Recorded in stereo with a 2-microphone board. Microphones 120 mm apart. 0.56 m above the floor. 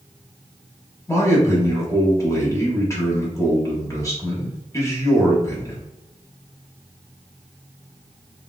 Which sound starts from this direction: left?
A man speaking, at 1.1 s.